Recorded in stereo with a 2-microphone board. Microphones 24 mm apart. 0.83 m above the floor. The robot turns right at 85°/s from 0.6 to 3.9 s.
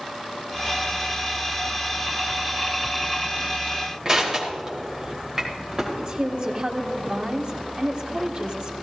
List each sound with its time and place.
4.0 s crushing: 30° right (ahead or behind), 2.5 m
6.0 s a woman speaking: 55° right (ahead or behind), 1.2 m